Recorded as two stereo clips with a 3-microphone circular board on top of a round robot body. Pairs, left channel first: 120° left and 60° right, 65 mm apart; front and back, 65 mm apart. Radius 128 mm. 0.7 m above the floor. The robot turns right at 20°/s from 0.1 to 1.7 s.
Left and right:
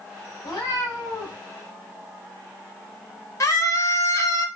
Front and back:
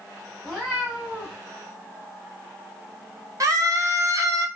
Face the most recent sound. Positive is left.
turn(degrees=150)